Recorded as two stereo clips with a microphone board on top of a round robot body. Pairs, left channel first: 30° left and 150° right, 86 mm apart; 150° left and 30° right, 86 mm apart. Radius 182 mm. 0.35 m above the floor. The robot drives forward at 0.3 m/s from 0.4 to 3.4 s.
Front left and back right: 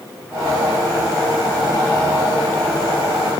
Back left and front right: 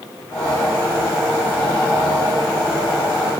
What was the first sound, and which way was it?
Only background noise.